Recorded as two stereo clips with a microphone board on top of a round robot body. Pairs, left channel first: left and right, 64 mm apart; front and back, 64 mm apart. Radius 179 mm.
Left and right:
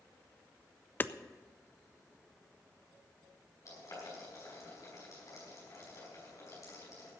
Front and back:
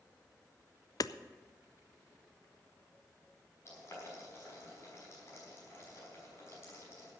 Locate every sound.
1.0 s hammering: 30° left, 0.5 m
3.6 s boiling: 50° left, 5.5 m